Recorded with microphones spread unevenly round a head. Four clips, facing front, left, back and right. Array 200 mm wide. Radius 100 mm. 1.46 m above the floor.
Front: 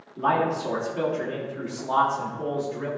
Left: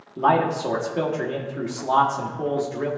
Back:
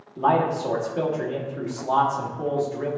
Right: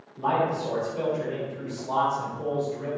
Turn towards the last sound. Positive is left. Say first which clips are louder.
# left 5 dB, back 2 dB
turn(degrees=95)